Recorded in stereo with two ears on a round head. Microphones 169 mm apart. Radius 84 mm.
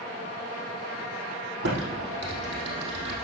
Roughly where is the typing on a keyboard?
Right.